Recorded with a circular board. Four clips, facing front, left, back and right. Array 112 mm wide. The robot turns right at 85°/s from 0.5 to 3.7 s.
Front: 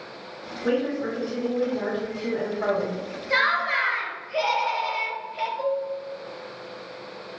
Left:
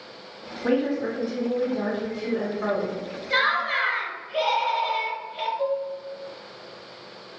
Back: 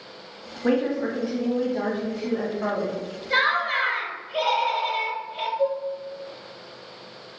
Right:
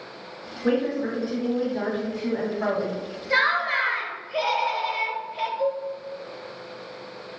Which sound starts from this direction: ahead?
Dishes clattering, at 5.6 s.